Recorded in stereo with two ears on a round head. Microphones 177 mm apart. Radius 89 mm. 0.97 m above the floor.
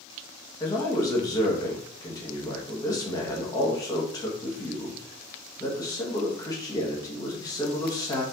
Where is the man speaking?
20° left (ahead or behind), 1.4 m.